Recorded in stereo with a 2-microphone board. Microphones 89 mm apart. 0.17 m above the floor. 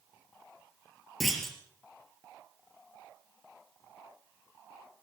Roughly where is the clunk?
Centre.